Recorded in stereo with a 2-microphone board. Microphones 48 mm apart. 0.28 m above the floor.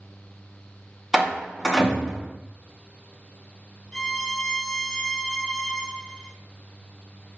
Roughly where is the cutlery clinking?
I don't hear cutlery clinking.